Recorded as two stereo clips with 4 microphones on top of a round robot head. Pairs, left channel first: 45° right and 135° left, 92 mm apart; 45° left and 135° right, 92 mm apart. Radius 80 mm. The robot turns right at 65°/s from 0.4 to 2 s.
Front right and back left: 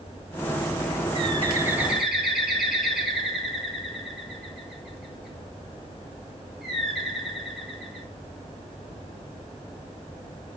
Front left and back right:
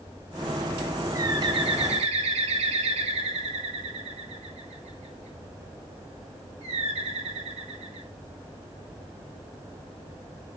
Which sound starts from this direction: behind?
A bird, at 1.1 s.